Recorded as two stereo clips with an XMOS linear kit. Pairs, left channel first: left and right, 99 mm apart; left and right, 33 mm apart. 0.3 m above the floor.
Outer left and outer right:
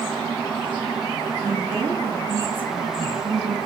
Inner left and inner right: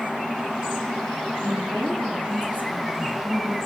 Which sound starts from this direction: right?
A woman speaking, at 1.4 s.